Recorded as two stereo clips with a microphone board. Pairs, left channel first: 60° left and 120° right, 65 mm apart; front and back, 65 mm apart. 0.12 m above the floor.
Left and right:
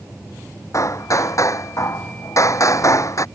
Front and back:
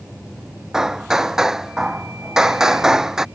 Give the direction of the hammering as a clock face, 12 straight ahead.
9 o'clock.